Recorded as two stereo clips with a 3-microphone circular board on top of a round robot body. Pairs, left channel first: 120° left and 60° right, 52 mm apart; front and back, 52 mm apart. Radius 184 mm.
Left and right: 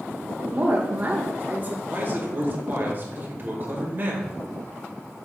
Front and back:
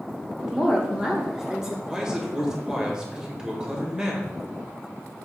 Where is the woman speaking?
105° right, 1.3 m.